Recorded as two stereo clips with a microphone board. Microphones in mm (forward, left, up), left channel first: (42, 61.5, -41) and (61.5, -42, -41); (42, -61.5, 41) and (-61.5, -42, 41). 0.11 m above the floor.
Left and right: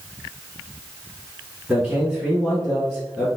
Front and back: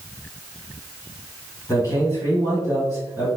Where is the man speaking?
5° right, 2.0 m.